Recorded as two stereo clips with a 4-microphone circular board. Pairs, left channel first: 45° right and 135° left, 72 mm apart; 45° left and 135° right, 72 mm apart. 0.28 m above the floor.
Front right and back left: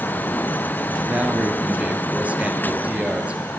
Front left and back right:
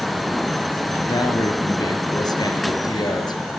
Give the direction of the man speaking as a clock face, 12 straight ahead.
10 o'clock.